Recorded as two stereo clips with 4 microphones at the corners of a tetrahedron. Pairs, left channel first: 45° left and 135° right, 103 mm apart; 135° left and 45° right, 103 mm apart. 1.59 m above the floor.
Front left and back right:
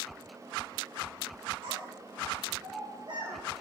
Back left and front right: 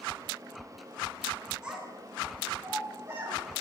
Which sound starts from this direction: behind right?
A child speaking, at 1.6 s.